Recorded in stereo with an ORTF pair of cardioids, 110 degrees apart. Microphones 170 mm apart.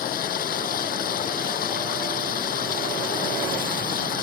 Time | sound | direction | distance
0.0 | running water | 60° left | ?